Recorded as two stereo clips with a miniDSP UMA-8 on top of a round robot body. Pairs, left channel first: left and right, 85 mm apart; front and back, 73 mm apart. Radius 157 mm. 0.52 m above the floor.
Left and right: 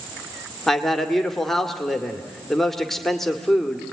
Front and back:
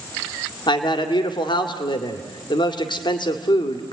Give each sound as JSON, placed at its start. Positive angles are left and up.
{"t": 0.7, "sound": "a man speaking", "azimuth_deg": 5, "distance_m": 1.9}